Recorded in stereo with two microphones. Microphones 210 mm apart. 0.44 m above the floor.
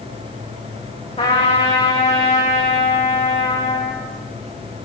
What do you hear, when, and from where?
1.2 s a trumpet: 30° left (ahead or behind), 4.5 m